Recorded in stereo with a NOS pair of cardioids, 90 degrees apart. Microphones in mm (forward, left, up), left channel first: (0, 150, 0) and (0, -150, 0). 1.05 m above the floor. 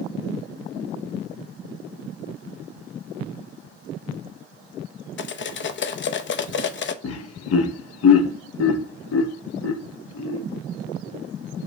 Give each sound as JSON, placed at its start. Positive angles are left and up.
{"t": 5.2, "sound": "cutlery clinking", "azimuth_deg": 40, "distance_m": 0.6}
{"t": 7.0, "sound": "laughter", "azimuth_deg": 55, "distance_m": 0.8}